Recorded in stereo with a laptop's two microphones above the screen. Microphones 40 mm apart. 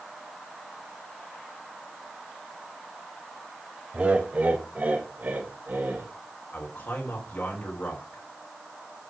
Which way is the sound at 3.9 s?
30° right (ahead or behind).